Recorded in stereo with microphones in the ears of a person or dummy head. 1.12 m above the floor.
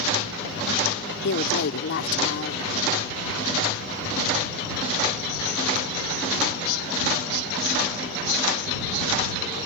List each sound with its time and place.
1.2 s a woman speaking: 65° left (ahead or behind)